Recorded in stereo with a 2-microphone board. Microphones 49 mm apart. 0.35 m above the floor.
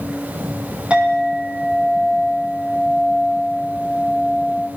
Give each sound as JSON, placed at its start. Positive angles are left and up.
{"t": 0.9, "sound": "a clink", "side_deg": -20, "distance_m": 8.0}